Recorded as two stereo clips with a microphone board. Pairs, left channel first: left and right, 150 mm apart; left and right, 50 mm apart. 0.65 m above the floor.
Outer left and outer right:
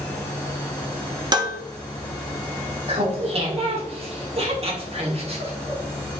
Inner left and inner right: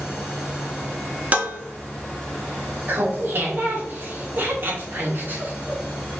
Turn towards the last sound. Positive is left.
turn(degrees=-40)  # may be behind; listen again after turning